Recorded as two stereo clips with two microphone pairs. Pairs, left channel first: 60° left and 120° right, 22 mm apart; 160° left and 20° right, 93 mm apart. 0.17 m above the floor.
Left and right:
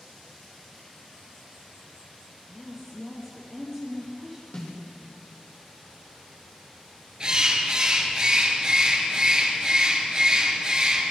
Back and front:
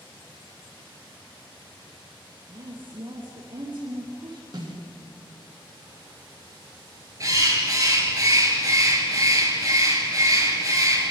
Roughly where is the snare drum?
Ahead.